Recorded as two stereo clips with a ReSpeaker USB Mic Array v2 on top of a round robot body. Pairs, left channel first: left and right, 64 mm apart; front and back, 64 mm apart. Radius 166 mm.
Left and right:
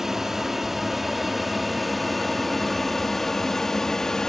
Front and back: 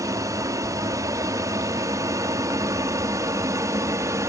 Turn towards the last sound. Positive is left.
turn(degrees=170)